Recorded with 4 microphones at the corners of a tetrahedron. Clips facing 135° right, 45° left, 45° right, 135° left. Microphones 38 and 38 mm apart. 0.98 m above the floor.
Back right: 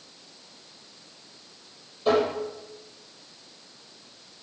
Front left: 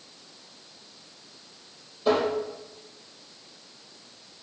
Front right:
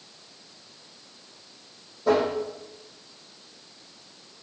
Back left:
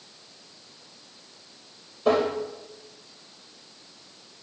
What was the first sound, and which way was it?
Tapping, 135° left.